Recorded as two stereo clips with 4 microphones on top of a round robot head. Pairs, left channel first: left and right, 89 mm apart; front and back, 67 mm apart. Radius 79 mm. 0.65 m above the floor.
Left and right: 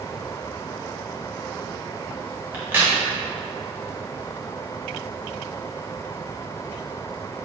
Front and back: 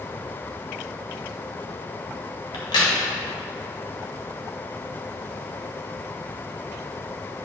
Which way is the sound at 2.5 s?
15° right.